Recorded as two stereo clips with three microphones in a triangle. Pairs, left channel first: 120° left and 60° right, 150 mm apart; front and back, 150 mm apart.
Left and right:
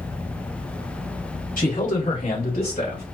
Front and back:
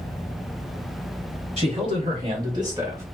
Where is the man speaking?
135° left, 3 m; by 3.0 s 110° left, 2.5 m.